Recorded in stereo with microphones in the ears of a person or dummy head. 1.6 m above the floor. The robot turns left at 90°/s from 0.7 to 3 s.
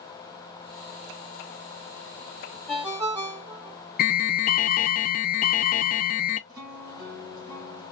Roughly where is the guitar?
Right.